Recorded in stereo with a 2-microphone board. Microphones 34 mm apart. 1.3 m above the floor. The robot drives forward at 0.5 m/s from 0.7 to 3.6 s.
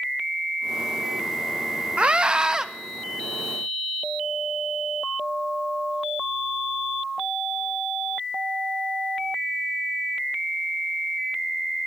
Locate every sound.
2.0 s a scream: 35° right (ahead or behind), 0.6 m; by 2.7 s 20° right (ahead or behind), 0.9 m